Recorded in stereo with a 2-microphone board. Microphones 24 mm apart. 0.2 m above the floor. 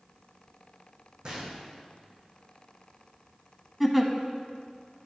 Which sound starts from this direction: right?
A gunshot, at 1.2 s.